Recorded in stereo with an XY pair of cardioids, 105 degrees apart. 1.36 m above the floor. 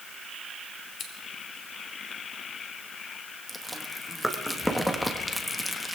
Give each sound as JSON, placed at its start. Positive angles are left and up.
{"t": 1.0, "sound": "scissors", "azimuth_deg": 65, "distance_m": 2.5}
{"t": 3.5, "sound": "chewing", "azimuth_deg": 5, "distance_m": 1.6}